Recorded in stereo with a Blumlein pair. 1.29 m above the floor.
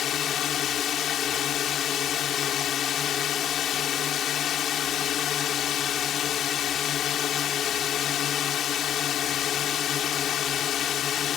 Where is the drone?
30° left.